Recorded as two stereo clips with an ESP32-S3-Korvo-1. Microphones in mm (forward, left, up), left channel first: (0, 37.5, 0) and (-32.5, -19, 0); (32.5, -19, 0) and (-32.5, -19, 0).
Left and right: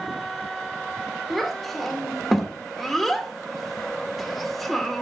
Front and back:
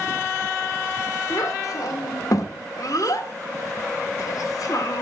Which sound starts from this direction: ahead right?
A child speaking, at 1.3 s.